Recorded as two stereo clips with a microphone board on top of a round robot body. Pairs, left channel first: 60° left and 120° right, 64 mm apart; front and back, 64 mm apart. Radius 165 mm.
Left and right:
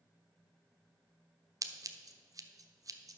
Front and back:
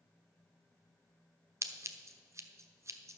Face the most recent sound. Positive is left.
turn(degrees=-145)